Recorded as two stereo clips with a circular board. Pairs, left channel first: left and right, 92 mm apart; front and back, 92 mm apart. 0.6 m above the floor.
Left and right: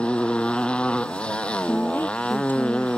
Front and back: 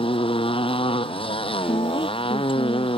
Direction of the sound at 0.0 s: 15° left.